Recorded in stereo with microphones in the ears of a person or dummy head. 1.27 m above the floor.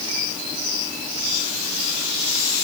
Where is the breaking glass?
No breaking glass in this recording.